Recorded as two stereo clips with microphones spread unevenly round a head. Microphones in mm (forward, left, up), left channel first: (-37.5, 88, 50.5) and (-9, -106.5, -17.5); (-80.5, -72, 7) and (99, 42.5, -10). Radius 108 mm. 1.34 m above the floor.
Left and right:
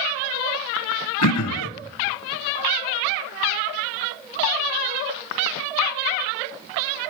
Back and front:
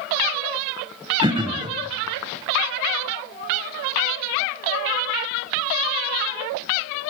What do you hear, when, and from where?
1.2 s throat clearing: 105° left, 0.9 m